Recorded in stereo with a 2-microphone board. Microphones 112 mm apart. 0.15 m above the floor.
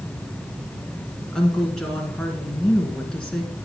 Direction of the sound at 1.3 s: 5° left (ahead or behind).